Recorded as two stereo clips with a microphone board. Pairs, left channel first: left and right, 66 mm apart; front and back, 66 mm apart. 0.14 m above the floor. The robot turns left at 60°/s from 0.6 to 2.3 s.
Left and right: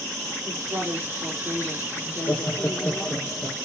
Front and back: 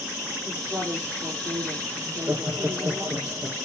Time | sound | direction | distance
0.5 | a woman speaking | 115° right | 3 m
2.1 | laughter | 160° left | 2.5 m